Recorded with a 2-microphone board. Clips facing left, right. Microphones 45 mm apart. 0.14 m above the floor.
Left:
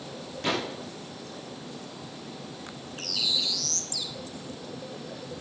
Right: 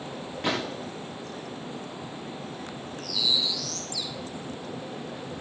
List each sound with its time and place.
0.4 s a gunshot: 15° right (ahead or behind), 7 m
3.0 s a bird: 65° left (ahead or behind), 0.9 m